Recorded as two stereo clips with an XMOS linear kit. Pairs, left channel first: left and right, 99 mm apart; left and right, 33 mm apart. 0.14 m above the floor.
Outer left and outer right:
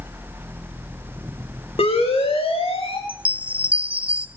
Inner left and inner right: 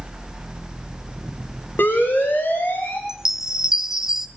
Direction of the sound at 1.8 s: 75° left (ahead or behind).